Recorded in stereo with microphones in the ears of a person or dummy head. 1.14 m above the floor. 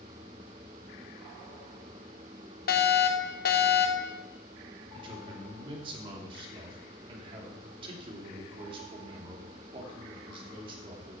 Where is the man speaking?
35° right (ahead or behind), 2.5 m.